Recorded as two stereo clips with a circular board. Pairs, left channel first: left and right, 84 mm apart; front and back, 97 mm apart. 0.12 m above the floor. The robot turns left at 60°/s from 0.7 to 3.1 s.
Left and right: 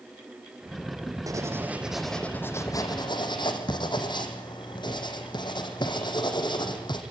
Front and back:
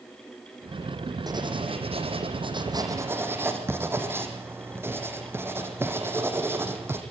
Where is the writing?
135° right, 3 m; by 7.0 s 115° left, 3 m.